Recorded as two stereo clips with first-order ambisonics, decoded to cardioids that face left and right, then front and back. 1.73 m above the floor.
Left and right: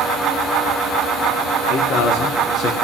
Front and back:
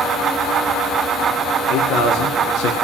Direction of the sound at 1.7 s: 50° left.